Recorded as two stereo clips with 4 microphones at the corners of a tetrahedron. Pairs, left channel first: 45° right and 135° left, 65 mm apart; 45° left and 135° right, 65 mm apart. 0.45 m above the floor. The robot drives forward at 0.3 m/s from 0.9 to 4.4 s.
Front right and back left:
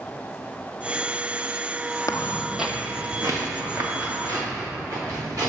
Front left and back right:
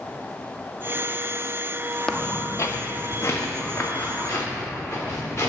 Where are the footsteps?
30° right, 0.7 m; by 5.5 s 95° left, 4.5 m.